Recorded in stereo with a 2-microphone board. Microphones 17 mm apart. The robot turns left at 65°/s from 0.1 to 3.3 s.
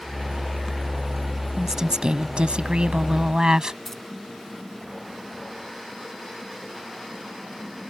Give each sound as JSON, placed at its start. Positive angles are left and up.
{"t": 1.6, "sound": "a woman speaking", "azimuth_deg": -20}
{"t": 3.9, "sound": "keys jangling", "side_deg": 20}